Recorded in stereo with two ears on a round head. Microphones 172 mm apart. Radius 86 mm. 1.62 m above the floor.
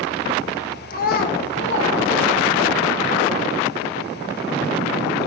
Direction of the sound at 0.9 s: 45° left (ahead or behind).